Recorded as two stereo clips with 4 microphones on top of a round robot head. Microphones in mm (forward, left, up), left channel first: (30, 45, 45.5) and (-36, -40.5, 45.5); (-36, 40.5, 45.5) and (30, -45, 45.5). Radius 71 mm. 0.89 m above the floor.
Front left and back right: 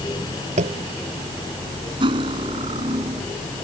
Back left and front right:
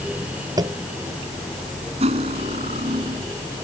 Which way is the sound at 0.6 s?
110° right.